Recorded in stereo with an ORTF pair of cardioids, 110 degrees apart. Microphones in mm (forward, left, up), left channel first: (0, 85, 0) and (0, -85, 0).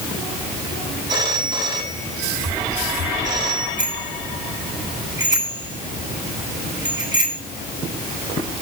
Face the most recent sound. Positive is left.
turn(degrees=-25)